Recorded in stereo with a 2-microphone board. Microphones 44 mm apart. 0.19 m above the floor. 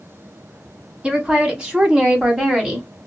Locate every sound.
1.0 s a woman speaking: 20° right (ahead or behind), 1.4 m; by 2.9 s 10° right (ahead or behind), 1.2 m